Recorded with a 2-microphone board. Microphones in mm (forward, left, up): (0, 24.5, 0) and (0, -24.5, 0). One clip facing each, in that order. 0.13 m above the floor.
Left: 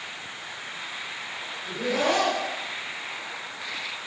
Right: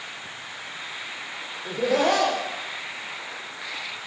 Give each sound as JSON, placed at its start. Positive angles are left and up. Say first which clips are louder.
{"t": 1.6, "sound": "laughter", "louder": "right 4 dB", "side_deg": -60, "distance_m": 4.5}